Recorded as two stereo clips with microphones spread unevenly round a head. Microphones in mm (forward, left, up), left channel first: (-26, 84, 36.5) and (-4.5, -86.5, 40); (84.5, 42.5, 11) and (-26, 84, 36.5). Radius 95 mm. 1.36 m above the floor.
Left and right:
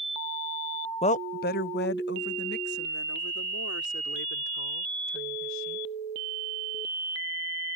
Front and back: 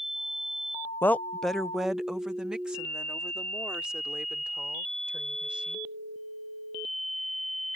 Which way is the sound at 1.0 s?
45° left.